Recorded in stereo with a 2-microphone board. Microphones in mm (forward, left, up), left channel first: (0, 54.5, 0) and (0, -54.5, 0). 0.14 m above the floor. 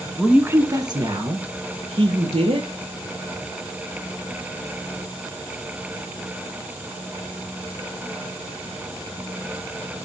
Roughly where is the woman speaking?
Centre.